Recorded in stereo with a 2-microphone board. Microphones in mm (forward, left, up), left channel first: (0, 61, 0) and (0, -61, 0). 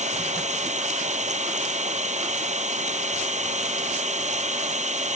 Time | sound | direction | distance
0.0 | an engine running | 75° right (ahead or behind) | ?